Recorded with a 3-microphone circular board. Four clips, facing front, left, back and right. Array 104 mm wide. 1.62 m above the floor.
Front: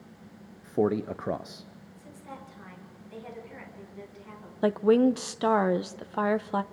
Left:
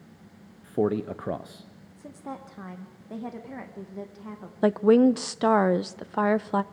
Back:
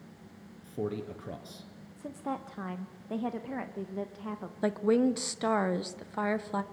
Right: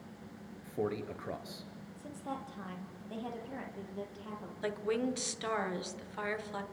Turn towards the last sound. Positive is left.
turn(degrees=70)